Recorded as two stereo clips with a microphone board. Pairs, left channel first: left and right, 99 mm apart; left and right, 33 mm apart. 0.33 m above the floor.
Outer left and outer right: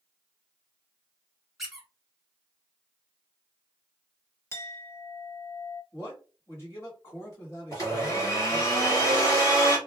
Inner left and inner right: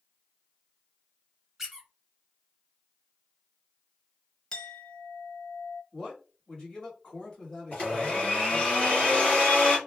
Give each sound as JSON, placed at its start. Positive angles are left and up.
{"t": 1.6, "sound": "a squeak", "side_deg": -5, "distance_m": 1.3}
{"t": 4.5, "sound": "a clink", "side_deg": 25, "distance_m": 0.7}
{"t": 5.9, "sound": "a man speaking", "side_deg": 30, "distance_m": 1.7}
{"t": 7.7, "sound": "a blender", "side_deg": 35, "distance_m": 1.7}